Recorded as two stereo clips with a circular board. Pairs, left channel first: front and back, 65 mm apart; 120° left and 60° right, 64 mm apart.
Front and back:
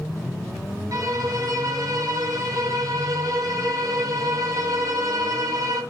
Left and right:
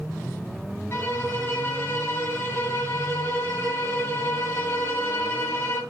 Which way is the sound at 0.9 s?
165° left.